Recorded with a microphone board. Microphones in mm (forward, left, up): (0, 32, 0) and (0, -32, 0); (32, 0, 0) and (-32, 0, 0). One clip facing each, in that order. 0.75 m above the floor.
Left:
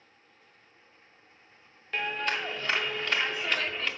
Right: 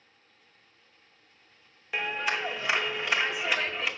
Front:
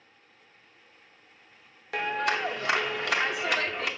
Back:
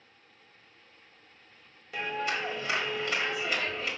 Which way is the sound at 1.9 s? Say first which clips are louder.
Right 1 dB, front 4 dB; 10° right.